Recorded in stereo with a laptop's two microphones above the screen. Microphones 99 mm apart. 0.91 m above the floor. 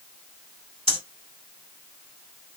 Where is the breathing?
70° right (ahead or behind), 2.5 m.